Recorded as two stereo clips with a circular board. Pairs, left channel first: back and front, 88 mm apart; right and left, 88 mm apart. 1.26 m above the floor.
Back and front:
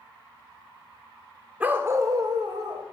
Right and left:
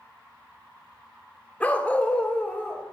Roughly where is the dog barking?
Ahead right.